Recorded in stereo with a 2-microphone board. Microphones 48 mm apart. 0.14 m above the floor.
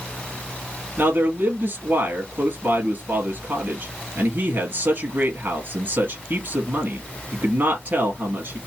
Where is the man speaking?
45° right (ahead or behind), 2 m.